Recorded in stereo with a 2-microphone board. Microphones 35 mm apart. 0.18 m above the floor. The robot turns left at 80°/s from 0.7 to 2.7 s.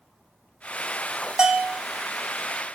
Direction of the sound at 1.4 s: 20° right (ahead or behind).